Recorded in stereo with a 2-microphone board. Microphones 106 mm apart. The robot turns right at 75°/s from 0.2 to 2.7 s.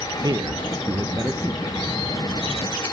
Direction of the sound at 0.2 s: 115° right.